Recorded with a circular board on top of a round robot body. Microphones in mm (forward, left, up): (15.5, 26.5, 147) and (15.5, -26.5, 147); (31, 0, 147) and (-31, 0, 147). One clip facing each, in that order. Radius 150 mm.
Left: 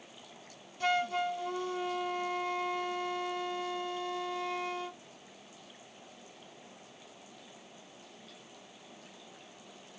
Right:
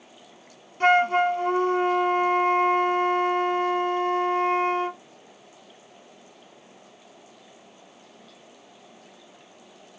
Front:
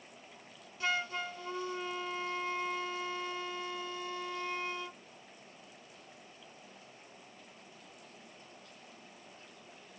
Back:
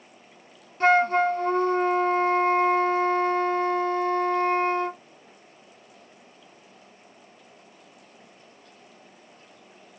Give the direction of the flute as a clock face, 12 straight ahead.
5 o'clock.